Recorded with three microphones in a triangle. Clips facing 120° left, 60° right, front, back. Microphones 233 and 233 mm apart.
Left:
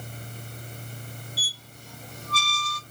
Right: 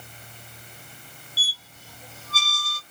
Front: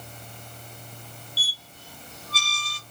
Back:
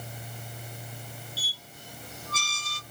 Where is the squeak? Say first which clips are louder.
Left 4 dB, back 1 dB; 145° right, 1.1 m.